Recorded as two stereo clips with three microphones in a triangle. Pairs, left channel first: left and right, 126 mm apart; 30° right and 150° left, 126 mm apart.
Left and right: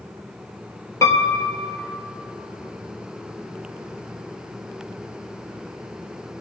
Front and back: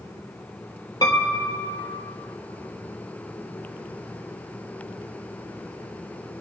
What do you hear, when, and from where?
1.0 s a piano: 25° left, 1.1 m